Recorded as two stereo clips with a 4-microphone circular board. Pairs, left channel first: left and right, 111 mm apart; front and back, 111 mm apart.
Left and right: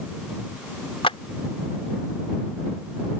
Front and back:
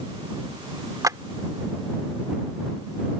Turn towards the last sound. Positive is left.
turn(degrees=120)